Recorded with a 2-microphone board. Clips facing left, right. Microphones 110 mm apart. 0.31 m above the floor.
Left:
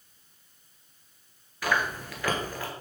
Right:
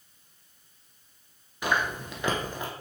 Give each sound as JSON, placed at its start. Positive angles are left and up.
{"t": 1.6, "sound": "chewing", "side_deg": -25, "distance_m": 1.6}